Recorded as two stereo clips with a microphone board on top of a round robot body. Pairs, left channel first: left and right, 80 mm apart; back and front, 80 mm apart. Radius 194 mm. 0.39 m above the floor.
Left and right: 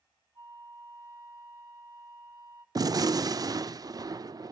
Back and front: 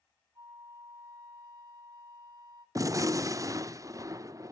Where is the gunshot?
50° right, 0.5 m.